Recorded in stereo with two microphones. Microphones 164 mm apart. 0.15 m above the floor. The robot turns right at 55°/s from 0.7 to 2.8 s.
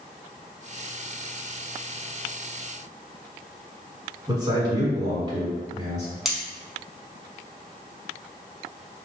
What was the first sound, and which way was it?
A man speaking, 25° right (ahead or behind).